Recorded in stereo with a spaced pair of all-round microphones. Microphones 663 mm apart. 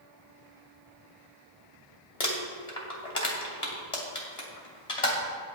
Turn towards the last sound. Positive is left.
turn(degrees=60)  # may be behind; listen again after turning